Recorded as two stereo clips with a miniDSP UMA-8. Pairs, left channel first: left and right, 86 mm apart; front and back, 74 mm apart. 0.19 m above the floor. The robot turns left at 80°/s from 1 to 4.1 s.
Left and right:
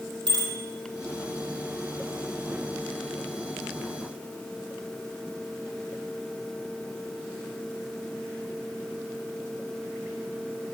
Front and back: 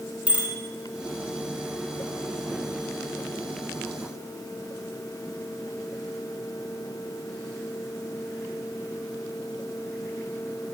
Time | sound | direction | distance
0.3 | a bicycle bell | 110° right | 5 m